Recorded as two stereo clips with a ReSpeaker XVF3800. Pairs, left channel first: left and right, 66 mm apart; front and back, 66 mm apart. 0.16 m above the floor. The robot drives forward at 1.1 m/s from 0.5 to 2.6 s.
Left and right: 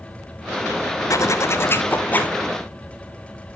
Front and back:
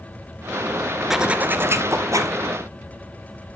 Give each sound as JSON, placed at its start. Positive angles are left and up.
{"t": 1.1, "sound": "a zipper", "azimuth_deg": 95, "distance_m": 0.8}